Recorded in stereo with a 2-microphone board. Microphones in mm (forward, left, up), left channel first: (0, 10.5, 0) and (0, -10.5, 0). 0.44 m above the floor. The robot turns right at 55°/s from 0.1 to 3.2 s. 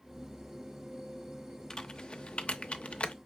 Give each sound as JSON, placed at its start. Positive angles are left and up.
{"t": 1.7, "sound": "typing on a keyboard", "side_deg": 25, "distance_m": 0.5}